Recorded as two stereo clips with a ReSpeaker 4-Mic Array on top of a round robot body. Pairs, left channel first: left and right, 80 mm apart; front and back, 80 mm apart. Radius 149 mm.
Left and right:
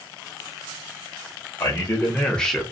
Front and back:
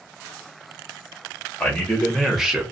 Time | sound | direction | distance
1.6 | a man speaking | 70° left | 1.2 m